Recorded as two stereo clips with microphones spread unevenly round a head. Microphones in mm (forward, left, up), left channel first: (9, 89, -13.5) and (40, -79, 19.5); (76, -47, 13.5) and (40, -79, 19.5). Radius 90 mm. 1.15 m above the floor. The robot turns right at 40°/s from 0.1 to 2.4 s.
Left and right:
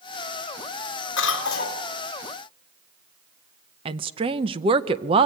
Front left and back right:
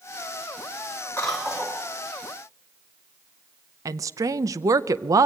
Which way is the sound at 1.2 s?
120° left.